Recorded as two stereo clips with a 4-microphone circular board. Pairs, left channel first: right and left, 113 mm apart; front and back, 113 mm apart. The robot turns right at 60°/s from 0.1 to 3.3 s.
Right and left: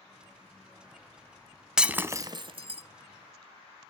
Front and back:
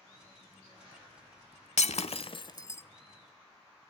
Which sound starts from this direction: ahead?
Breaking glass, at 1.8 s.